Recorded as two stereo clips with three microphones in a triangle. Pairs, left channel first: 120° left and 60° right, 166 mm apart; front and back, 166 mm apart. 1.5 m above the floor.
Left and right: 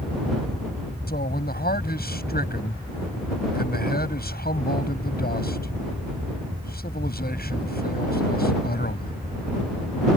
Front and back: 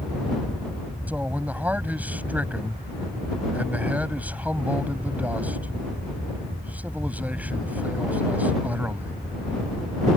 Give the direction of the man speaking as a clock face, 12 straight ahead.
9 o'clock.